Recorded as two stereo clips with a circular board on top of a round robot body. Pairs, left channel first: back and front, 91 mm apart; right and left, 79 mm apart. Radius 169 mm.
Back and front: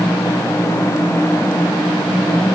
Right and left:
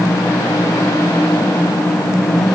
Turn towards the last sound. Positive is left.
No sound to turn to.